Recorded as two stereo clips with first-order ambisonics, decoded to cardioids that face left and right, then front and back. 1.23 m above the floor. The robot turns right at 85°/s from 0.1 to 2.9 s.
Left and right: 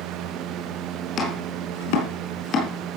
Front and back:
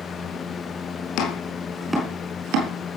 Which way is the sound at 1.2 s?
30° left.